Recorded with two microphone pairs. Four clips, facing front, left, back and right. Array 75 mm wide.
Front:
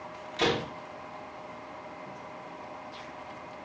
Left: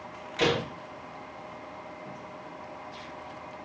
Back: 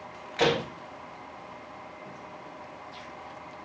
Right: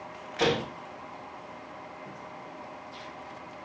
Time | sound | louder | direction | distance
0.4 | a door slam | even, back 3 dB | straight behind | 5 m